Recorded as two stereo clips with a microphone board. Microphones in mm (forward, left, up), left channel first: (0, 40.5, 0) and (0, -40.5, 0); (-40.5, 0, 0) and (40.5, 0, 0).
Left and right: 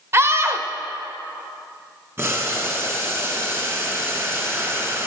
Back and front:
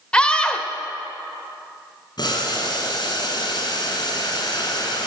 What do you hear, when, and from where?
0.1 s a scream: 110° right, 0.9 m
2.2 s boiling: 150° right, 2 m